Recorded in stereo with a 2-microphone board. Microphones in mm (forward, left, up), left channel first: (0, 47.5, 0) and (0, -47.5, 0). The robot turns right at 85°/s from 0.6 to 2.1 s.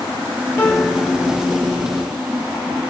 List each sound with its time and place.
0.6 s a piano: 155° left, 1.7 m; by 1.1 s 155° right, 1.7 m